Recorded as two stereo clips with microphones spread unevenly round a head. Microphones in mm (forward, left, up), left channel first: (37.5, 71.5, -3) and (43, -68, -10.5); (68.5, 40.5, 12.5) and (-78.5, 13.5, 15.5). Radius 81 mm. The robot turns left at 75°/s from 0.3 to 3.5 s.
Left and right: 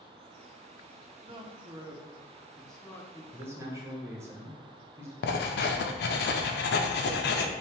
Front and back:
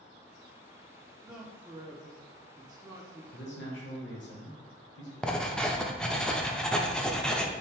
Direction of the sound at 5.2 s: 95° left.